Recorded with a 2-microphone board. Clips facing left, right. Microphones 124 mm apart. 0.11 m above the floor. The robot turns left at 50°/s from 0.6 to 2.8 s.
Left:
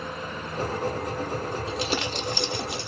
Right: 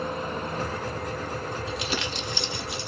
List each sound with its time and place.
1.7 s crumpling: 150° left, 0.8 m; by 2.9 s 95° left, 0.8 m